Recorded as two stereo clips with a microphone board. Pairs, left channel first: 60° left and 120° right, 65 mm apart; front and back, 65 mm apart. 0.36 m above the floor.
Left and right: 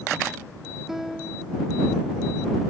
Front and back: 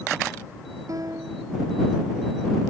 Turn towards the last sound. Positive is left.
turn(degrees=155)